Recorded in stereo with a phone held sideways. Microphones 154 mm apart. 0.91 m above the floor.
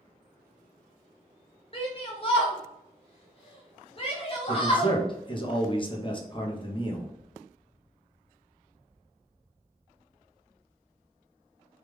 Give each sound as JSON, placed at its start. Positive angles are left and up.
{"t": 1.7, "sound": "a shout", "side_deg": 40, "distance_m": 0.6}
{"t": 4.5, "sound": "a man speaking", "side_deg": 35, "distance_m": 0.8}